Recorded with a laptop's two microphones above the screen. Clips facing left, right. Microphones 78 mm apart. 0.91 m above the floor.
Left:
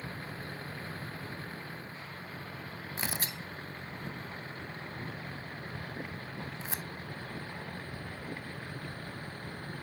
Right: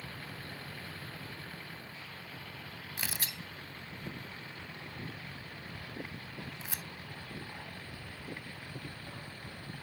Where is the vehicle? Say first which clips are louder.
Left 4 dB; 30° left (ahead or behind); by 9.8 s 40° left (ahead or behind).